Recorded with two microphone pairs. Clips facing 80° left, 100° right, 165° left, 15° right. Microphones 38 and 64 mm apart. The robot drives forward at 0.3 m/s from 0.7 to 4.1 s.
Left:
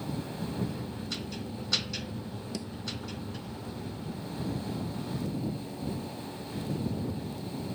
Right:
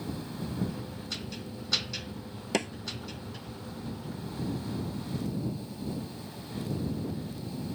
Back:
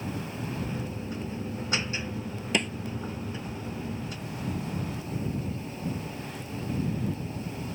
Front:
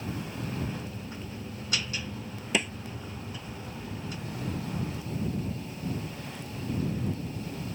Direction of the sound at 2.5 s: 105° right.